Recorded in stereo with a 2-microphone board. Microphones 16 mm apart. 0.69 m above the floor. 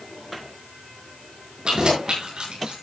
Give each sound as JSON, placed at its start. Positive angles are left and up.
{"t": 1.6, "sound": "keys jangling", "side_deg": -50, "distance_m": 6.5}